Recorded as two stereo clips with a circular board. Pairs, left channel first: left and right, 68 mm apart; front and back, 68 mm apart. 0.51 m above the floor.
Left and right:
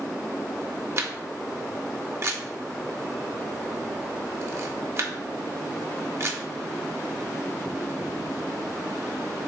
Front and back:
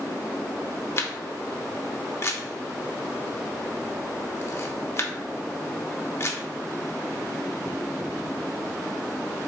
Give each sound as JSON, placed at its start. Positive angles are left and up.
{"t": 1.0, "sound": "a camera shutter", "azimuth_deg": -45, "distance_m": 0.5}